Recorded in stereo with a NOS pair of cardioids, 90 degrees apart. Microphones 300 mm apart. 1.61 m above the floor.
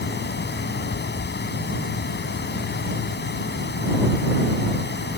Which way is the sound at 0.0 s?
35° left.